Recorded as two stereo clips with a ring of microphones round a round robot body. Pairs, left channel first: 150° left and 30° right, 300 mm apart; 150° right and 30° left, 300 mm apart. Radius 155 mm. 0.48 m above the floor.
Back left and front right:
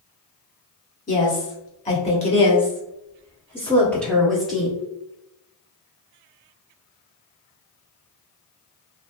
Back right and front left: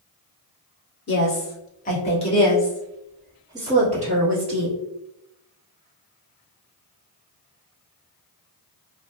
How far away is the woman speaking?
About 1.6 m.